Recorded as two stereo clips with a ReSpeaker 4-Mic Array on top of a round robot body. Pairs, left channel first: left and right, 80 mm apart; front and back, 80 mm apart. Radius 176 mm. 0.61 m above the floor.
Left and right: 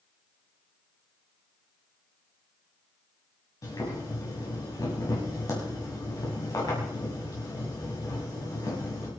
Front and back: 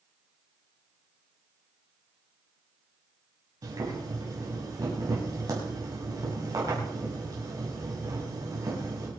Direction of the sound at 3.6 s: 135° left.